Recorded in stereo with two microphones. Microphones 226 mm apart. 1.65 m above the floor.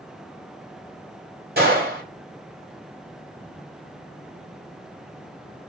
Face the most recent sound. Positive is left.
turn(degrees=-45)  # may be behind; listen again after turning